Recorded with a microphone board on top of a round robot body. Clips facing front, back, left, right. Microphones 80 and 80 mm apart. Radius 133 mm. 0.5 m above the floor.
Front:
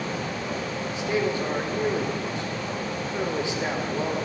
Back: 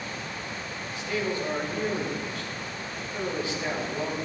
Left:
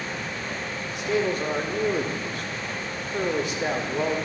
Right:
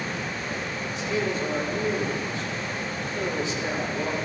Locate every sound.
0.9 s a man speaking: 70° left, 2 m